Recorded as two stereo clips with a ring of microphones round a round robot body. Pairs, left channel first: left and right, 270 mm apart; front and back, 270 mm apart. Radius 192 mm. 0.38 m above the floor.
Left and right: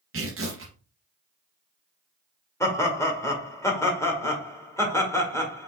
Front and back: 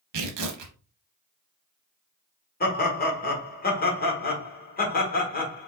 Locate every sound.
0.1 s tearing paper: 150° right, 0.7 m
2.6 s laughter: 15° left, 1.4 m